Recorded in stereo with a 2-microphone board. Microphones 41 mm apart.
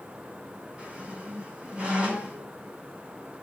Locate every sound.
0.8 s a squeak: 30° right (ahead or behind), 7 m